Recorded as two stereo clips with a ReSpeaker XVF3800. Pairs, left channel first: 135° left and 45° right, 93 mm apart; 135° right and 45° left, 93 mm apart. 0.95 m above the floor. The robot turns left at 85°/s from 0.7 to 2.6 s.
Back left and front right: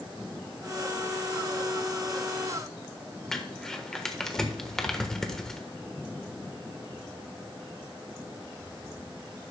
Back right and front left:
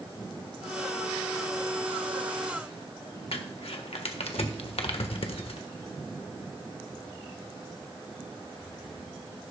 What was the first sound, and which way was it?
Crumpling, 140° right.